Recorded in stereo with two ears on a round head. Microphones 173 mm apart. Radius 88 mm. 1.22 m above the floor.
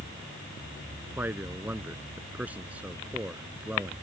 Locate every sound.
1.2 s a man speaking: 10° right (ahead or behind); by 3.9 s 5° right (ahead or behind)